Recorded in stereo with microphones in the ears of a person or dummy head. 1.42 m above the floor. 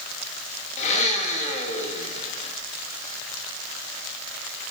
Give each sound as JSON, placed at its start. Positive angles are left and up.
{"t": 0.8, "sound": "a blender", "side_deg": 40, "distance_m": 3.0}